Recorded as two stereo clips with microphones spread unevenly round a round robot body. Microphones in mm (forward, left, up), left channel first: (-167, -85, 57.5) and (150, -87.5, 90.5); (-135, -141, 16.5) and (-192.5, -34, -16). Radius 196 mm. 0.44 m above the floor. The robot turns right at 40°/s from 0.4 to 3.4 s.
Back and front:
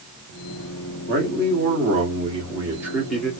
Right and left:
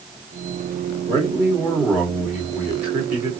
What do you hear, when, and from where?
1.1 s a man speaking: 20° left, 1.5 m; by 3.3 s 110° left, 1.5 m